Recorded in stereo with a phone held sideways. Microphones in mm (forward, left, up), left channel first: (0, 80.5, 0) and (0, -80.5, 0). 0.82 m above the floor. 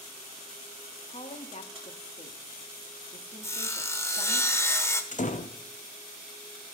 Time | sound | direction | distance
1.1 | a woman speaking | 45° left (ahead or behind) | 1.2 m
3.4 | sawing | 15° left (ahead or behind) | 1.0 m
5.1 | a door slam | 50° left (ahead or behind) | 0.6 m